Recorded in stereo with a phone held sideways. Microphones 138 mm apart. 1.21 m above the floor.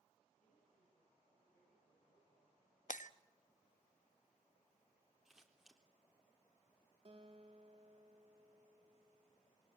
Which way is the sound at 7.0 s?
40° right (ahead or behind).